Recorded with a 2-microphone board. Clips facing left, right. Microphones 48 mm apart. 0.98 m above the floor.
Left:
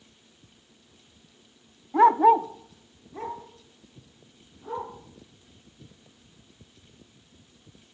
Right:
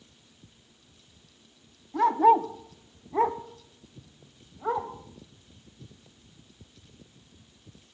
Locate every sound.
1.9 s a dog barking: 35° left (ahead or behind), 0.5 m; by 4.9 s 75° right (ahead or behind), 2.5 m